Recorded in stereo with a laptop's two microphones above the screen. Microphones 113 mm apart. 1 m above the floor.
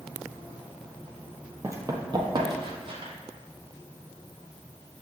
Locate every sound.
1.6 s running footsteps: 25° right (ahead or behind), 1.0 m; by 3.1 s 50° right (ahead or behind), 1.6 m